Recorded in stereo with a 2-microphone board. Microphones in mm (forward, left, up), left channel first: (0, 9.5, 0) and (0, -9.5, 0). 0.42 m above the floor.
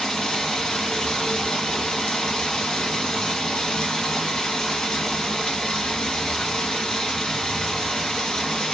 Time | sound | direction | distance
0.0 | running water | 50° left (ahead or behind) | 1.3 m